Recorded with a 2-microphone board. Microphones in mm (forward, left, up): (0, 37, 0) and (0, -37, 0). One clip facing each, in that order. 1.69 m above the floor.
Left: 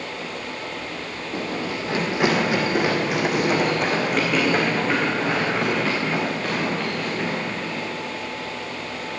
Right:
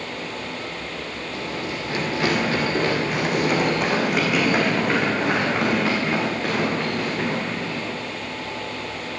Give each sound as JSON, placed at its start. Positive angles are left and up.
{"t": 1.3, "sound": "running footsteps", "side_deg": 35, "distance_m": 3.0}